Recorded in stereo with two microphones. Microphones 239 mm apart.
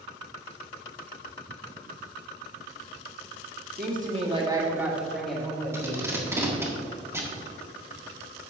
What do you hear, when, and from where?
3.8 s a woman speaking: 40° right (ahead or behind), 1.6 m; by 6.1 s 10° left (ahead or behind), 3 m
5.7 s tape being pulled: 10° right (ahead or behind), 1.4 m